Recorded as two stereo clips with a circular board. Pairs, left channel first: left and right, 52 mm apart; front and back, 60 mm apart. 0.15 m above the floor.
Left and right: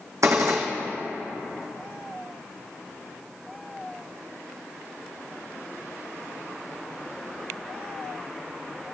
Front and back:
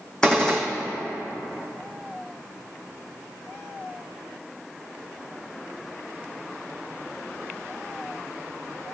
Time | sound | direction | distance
0.2 | a gunshot | 80° right | 2 m